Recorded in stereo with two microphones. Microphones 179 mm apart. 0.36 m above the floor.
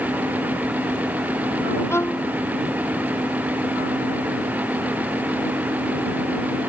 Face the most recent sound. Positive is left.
turn(degrees=15)  # may be behind; listen again after turning